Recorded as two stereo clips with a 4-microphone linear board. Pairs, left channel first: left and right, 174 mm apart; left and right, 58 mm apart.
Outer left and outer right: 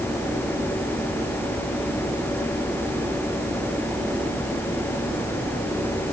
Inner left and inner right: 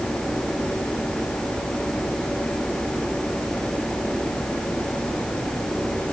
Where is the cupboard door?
I don't hear a cupboard door.